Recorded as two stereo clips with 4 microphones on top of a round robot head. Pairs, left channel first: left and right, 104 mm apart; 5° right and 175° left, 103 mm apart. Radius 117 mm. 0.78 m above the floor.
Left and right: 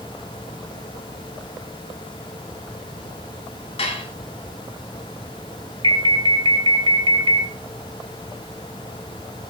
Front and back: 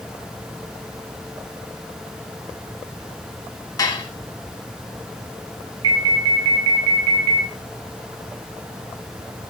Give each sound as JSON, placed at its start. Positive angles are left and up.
{"t": 3.8, "sound": "dishes clattering", "azimuth_deg": 50, "distance_m": 5.0}
{"t": 5.8, "sound": "an alarm", "azimuth_deg": -135, "distance_m": 4.5}